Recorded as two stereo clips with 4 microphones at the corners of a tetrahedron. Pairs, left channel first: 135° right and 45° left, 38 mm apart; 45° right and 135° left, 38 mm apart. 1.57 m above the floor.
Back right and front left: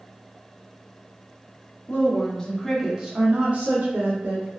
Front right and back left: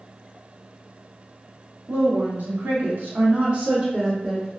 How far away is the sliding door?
I don't hear a sliding door.